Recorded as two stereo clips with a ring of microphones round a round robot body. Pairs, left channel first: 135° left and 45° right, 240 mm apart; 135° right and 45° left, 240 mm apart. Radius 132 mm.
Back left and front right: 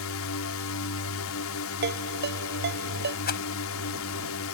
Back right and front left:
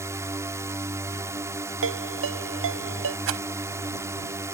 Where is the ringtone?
5° left.